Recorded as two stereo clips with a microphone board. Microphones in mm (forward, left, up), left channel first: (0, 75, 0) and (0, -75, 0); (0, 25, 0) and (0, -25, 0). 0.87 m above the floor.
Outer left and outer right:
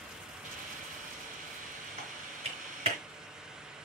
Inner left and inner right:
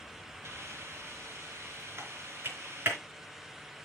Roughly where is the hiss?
Right.